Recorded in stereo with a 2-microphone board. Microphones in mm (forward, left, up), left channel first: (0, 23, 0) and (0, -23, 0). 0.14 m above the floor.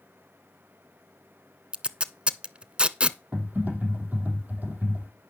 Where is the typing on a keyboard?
35° right (ahead or behind), 4.5 m.